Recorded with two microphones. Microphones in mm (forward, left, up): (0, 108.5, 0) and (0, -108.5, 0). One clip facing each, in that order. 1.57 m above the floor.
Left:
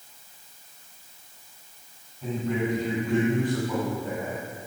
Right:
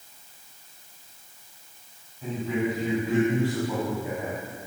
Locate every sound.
2.2 s a man speaking: centre (ahead or behind), 9 m; by 4.4 s 15° right (ahead or behind), 9 m